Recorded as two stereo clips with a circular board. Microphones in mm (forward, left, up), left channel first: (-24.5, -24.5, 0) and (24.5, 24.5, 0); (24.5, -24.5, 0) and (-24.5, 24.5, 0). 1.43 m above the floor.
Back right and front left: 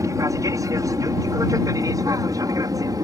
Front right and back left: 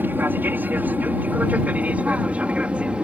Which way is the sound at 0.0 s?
75° left.